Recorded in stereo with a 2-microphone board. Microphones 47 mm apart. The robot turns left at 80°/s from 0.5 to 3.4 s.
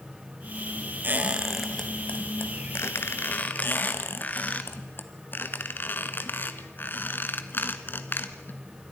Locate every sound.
1.0 s a squeak: 45° right (ahead or behind), 1.6 m; by 4.6 s 35° left (ahead or behind), 1.6 m
3.6 s a squeak: 50° left (ahead or behind), 1.3 m